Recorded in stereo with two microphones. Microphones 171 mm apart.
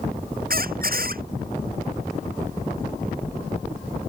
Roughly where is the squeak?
Right.